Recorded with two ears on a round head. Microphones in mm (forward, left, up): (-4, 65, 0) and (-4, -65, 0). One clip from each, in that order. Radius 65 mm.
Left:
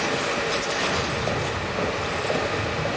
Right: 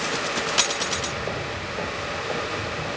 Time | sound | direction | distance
0.8 | footsteps | 45° right (ahead or behind) | 5.5 m